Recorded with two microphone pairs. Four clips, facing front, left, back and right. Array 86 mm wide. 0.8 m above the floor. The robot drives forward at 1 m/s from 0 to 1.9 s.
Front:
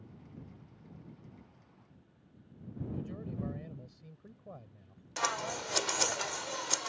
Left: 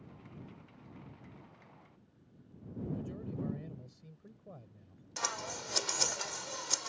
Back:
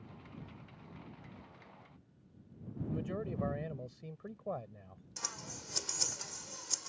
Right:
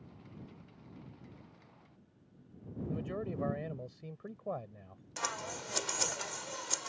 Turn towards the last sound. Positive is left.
turn(degrees=-5)